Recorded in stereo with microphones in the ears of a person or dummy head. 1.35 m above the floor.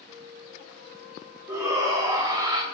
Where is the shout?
15° right (ahead or behind), 3.5 m; by 2.6 s 20° right (ahead or behind), 1.8 m.